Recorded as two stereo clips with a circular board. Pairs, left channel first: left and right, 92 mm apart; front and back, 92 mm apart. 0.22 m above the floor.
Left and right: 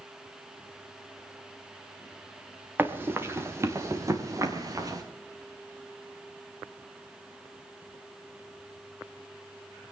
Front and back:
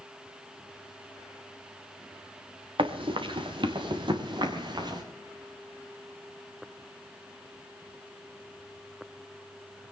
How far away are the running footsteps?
About 2.5 m.